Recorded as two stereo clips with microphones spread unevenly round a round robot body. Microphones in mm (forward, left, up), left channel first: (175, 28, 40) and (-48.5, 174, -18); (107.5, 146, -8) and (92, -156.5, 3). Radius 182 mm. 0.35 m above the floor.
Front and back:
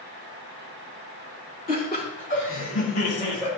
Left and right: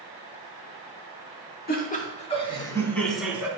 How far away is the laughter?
About 3.5 m.